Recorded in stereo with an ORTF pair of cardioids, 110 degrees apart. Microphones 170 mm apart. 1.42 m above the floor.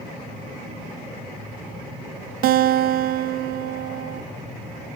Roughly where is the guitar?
Ahead right.